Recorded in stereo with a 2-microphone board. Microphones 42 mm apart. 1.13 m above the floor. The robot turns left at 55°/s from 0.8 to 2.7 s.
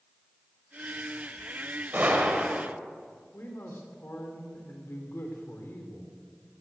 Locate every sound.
1.9 s a gunshot: 135° right, 1.9 m; by 2.7 s 175° right, 1.9 m
3.3 s a man speaking: 65° left (ahead or behind), 2.5 m